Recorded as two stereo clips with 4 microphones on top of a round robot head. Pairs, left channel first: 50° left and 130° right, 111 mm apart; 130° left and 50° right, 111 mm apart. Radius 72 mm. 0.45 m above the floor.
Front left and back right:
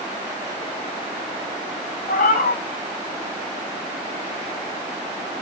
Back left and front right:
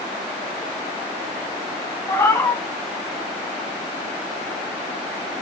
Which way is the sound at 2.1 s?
65° left.